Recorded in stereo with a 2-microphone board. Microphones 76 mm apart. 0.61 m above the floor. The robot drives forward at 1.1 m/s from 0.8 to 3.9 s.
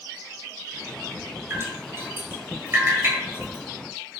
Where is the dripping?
30° right (ahead or behind), 9 m; by 3.6 s 25° right (ahead or behind), 11 m.